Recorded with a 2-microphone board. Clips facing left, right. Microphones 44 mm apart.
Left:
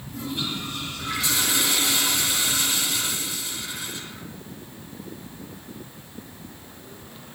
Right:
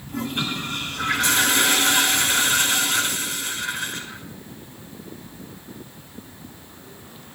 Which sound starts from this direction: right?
A toilet flushing, at 0.1 s.